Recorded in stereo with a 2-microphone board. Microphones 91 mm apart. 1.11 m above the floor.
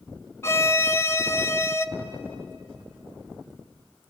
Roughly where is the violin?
Left.